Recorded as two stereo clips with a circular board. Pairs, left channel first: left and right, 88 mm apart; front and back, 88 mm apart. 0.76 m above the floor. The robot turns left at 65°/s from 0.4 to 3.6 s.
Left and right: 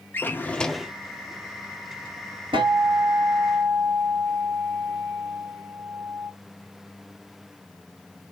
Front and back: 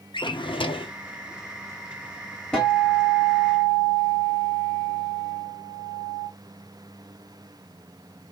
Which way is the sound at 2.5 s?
80° right.